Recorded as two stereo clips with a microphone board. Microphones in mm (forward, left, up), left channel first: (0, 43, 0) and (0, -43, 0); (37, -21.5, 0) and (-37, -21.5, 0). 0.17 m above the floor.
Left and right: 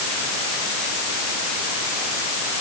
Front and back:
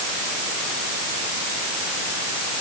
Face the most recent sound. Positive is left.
No sound to turn to.